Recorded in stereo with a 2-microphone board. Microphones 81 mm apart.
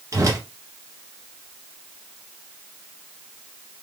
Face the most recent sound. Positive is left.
turn(degrees=-40)  # may be behind; listen again after turning